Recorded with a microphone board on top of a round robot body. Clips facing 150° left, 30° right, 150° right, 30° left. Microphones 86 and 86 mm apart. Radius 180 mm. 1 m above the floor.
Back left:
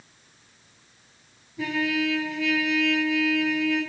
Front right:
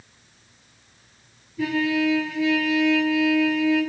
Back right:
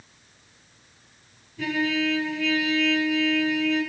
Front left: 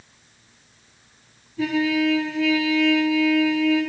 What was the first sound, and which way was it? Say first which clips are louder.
A trumpet: front right 4 dB, front left 4 dB; 85° left.